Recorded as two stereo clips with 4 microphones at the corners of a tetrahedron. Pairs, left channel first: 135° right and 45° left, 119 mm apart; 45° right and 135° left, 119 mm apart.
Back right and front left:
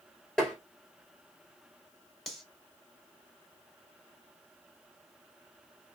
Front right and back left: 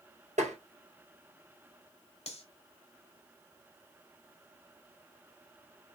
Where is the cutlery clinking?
45° right, 1.0 m.